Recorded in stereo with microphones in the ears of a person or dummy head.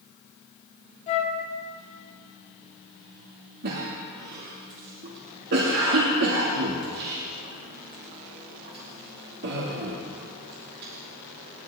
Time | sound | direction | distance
1.1 | a flute | 35° left (ahead or behind) | 1.9 m
3.6 | a cough | 60° right (ahead or behind) | 2 m